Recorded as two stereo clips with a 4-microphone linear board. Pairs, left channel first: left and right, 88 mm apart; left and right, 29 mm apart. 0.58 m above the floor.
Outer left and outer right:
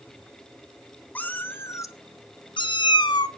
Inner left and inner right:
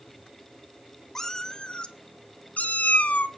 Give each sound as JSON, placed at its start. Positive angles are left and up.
{"t": 1.1, "sound": "a cat meowing", "side_deg": 20, "distance_m": 1.2}